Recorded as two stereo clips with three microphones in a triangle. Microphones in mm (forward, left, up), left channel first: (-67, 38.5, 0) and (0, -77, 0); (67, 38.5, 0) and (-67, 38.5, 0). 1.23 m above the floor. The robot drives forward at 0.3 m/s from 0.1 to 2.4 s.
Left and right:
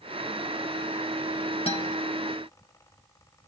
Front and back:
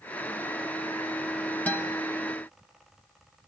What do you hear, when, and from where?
1.7 s a guitar: 80° left, 1.8 m